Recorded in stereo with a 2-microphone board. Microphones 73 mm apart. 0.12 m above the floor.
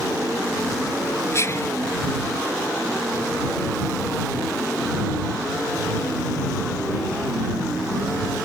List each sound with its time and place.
1.3 s whispering: 40° left (ahead or behind)